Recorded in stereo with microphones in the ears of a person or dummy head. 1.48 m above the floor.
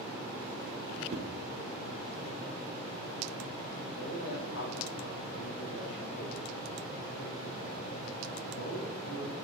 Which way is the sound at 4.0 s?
75° left (ahead or behind).